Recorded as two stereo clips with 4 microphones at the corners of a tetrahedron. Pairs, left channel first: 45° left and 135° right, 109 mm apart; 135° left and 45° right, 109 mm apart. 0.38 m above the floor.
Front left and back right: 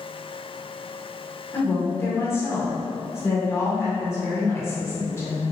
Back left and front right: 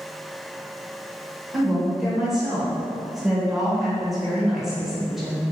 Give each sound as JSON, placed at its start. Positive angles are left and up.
{"t": 1.5, "sound": "a woman speaking", "azimuth_deg": 40, "distance_m": 0.9}